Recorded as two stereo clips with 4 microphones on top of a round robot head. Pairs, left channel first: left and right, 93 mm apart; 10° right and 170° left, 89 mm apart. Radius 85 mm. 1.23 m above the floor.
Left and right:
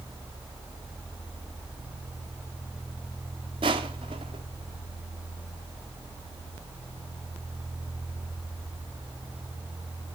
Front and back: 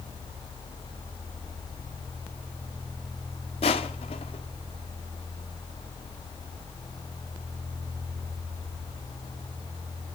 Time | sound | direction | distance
3.6 | crushing | 40° right | 1.5 m